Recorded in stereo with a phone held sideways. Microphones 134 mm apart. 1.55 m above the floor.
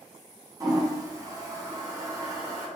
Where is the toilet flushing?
25° right (ahead or behind), 1.1 m.